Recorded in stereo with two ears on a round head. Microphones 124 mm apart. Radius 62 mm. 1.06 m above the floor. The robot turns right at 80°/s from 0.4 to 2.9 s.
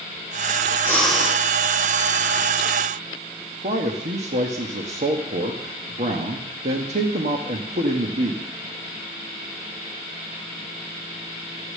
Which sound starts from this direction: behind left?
Breathing, at 0.8 s.